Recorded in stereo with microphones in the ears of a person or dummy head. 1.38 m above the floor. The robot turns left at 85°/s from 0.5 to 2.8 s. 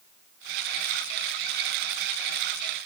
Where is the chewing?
No chewing in this recording.